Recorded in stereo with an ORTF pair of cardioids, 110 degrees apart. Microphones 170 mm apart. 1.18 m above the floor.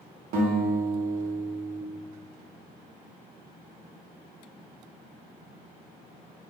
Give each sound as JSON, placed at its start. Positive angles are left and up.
{"t": 0.3, "sound": "a guitar", "azimuth_deg": -60, "distance_m": 0.7}